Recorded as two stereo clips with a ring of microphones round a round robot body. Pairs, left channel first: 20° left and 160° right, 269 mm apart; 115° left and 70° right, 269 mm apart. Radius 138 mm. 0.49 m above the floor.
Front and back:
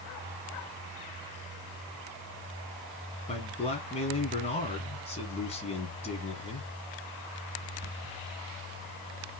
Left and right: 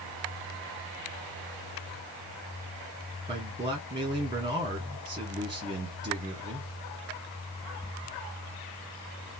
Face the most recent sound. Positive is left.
turn(degrees=-15)